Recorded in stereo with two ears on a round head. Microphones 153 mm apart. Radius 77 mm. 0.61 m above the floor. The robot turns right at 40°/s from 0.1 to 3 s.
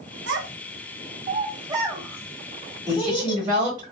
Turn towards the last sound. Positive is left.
turn(degrees=-25)  # may be behind; listen again after turning